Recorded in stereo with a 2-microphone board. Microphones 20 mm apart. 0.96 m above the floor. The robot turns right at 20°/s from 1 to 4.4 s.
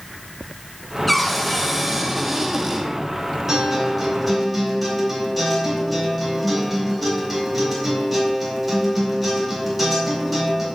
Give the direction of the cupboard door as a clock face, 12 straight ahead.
6 o'clock.